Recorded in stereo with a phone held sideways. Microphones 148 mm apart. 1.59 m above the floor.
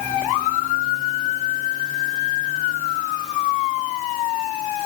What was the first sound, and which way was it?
Only background noise.